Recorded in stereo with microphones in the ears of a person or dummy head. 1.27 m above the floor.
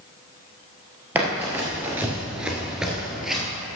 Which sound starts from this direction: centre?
Running footsteps, at 1.1 s.